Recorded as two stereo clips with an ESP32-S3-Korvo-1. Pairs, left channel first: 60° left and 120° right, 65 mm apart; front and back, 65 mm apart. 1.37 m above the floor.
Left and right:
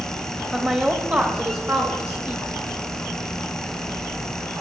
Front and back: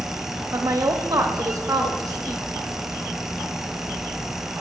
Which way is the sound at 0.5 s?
170° left.